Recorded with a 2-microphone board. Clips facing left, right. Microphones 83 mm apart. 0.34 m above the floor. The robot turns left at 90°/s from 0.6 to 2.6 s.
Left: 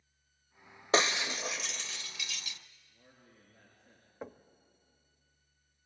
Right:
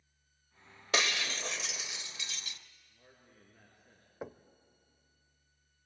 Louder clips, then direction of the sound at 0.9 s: Left 4 dB; 35° left (ahead or behind).